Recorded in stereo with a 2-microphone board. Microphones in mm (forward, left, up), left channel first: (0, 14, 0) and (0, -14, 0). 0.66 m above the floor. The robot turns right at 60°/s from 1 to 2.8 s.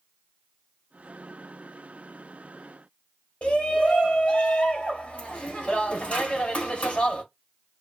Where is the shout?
45° left (ahead or behind), 1.4 m.